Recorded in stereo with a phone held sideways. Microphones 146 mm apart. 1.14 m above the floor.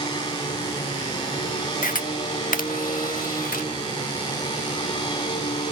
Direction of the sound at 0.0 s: 30° left (ahead or behind).